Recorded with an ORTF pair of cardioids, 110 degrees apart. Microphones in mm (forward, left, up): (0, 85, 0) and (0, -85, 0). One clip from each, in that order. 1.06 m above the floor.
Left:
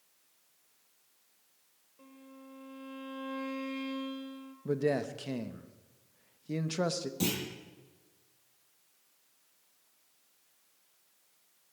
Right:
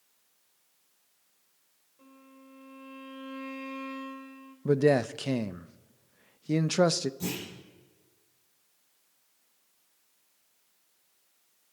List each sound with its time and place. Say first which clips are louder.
2.0 s a violin: left 1 dB; 15° left, 3.5 m
4.7 s a man speaking: right 7 dB; 40° right, 0.7 m
7.2 s a clunk: left 2 dB; 70° left, 9.5 m